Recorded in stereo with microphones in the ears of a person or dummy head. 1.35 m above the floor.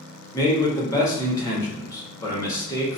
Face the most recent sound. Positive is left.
turn(degrees=20)  # may be behind; listen again after turning